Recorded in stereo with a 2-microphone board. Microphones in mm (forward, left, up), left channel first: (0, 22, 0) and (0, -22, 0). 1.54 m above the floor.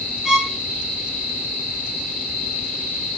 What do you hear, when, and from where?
0.2 s a violin: 5° right (ahead or behind), 1.1 m